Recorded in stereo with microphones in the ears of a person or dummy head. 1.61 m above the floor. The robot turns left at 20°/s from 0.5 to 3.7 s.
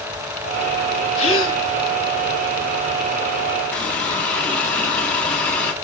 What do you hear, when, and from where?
1.2 s a gasp: 45° left (ahead or behind), 2 m; by 1.6 s 35° left (ahead or behind), 2 m
3.7 s a running tap: 15° left (ahead or behind), 1.9 m